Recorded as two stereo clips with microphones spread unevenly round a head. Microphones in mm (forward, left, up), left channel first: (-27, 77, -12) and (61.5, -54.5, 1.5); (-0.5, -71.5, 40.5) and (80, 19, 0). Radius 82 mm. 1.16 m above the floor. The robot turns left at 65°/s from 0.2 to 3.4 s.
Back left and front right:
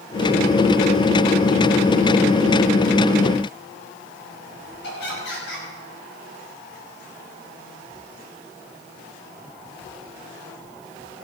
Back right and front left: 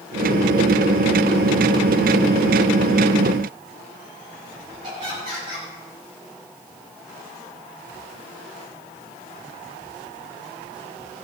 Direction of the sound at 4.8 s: 105° left.